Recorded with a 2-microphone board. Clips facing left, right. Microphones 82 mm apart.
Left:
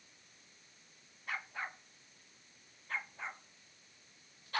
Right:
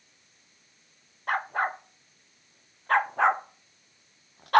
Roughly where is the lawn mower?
No lawn mower in this recording.